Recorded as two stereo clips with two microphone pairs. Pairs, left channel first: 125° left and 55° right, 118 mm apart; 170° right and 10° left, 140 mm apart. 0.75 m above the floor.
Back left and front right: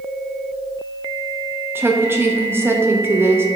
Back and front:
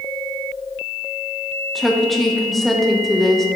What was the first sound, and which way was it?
A woman speaking, 80° right.